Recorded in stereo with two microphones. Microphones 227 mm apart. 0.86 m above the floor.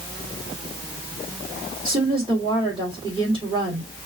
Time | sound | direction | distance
1.9 | a woman speaking | 20° right (ahead or behind) | 2 m